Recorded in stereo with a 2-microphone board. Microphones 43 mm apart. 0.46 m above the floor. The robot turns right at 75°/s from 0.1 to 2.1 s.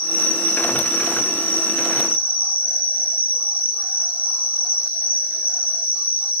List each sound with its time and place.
0.0 s an insect: 145° left, 3.5 m; by 6.4 s 65° right, 3.5 m